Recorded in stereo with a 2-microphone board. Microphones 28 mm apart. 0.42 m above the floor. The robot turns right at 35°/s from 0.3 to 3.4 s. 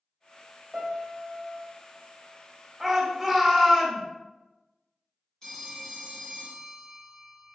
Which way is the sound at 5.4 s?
20° left (ahead or behind).